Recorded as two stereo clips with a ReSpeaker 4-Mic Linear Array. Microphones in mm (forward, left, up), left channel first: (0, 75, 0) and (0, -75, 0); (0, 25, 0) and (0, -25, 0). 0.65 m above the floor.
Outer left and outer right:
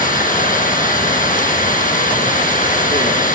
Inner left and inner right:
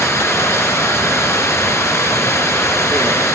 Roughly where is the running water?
Left.